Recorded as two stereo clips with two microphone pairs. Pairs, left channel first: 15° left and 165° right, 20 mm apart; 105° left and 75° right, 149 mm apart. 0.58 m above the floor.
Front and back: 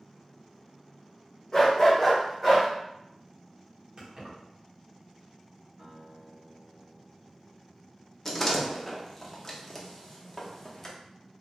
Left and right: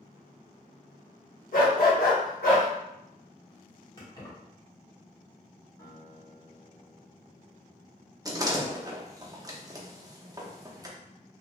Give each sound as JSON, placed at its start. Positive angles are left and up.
{"t": 1.5, "sound": "a dog barking", "azimuth_deg": 85, "distance_m": 0.9}
{"t": 4.0, "sound": "keys jangling", "azimuth_deg": 160, "distance_m": 1.1}
{"t": 5.8, "sound": "a guitar", "azimuth_deg": 165, "distance_m": 1.3}
{"t": 8.2, "sound": "a door slam", "azimuth_deg": -40, "distance_m": 0.6}